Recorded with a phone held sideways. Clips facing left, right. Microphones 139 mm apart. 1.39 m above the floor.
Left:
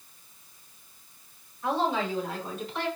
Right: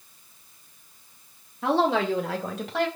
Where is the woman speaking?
80° right, 1.7 m; by 2.9 s 75° right (ahead or behind), 2.5 m.